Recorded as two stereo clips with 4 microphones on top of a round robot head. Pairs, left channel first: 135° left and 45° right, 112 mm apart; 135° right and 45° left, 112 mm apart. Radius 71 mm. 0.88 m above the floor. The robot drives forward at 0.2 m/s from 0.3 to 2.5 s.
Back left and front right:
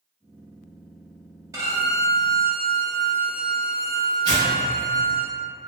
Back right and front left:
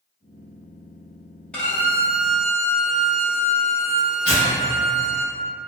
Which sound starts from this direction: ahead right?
A violin, at 1.5 s.